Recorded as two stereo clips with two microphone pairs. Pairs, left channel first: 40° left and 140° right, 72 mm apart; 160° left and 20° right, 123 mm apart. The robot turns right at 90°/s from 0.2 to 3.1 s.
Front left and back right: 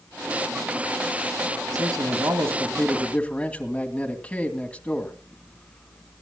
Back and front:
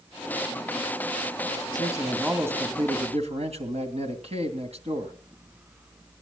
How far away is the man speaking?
About 2.5 m.